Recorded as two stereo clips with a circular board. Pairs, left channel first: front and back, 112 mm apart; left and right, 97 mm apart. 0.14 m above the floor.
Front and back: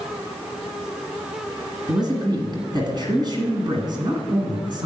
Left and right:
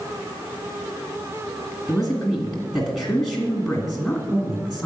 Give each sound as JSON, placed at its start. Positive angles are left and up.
{"t": 1.9, "sound": "a man speaking", "azimuth_deg": -175, "distance_m": 1.8}